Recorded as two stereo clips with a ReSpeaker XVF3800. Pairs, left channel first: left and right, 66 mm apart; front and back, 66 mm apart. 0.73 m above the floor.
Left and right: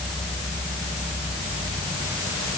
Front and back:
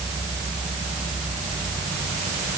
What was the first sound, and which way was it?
Only background noise.